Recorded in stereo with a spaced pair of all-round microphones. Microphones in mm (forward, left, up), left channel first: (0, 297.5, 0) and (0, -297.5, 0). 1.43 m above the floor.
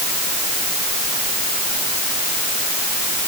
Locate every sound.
Only background noise.